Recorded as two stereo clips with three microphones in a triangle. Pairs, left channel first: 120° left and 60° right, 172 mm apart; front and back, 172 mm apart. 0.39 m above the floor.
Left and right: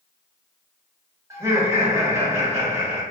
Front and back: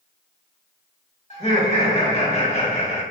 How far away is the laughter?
About 1.1 m.